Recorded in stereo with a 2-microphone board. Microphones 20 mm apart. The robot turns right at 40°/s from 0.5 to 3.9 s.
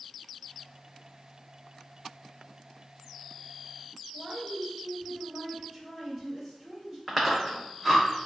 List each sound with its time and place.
4.1 s a woman speaking: 30° right (ahead or behind), 1.7 m
7.1 s chewing: 5° right (ahead or behind), 0.9 m